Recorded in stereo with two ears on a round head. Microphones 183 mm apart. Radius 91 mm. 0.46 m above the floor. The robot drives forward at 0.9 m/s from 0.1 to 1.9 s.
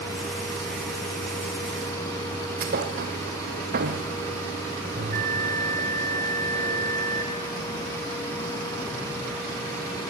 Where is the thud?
45° right (ahead or behind), 2.5 m.